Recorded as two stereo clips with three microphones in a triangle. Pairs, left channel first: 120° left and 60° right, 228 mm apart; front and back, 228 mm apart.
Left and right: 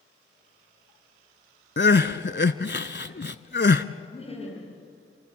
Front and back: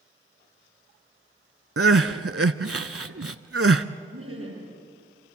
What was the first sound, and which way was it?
Crying, 165° left.